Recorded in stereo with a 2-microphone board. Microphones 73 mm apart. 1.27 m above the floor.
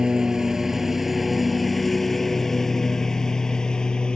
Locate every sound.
0.0 s a lawn mower: 10° right (ahead or behind); by 4.2 s 10° left (ahead or behind)